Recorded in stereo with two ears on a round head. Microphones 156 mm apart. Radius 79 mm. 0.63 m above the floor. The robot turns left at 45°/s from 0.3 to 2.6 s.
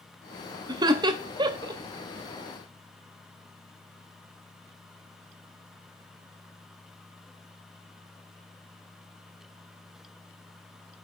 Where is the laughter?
20° right (ahead or behind), 0.6 m; by 1.8 s 25° right (ahead or behind), 0.6 m.